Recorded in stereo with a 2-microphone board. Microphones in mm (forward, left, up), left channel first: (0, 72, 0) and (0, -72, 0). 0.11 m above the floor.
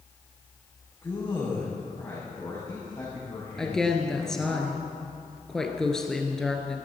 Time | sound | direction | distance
1.0 | a man speaking | 20° left (ahead or behind) | 7 m
3.6 | a woman speaking | 5° left (ahead or behind) | 1.8 m